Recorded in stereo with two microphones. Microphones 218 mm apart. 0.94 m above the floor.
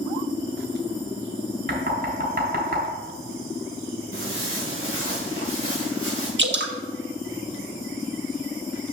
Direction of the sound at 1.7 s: 60° right (ahead or behind).